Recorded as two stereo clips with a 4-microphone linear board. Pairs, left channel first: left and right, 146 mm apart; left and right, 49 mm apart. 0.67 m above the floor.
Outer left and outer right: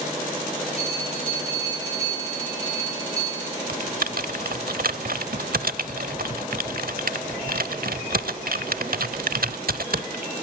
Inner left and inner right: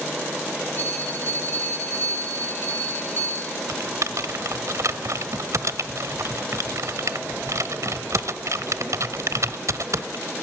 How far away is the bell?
About 8.5 m.